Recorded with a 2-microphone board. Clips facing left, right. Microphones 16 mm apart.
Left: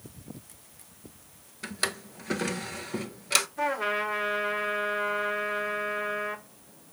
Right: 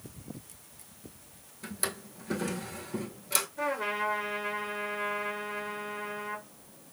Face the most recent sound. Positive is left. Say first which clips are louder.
# left 3 dB
turn(degrees=20)  # may be behind; listen again after turning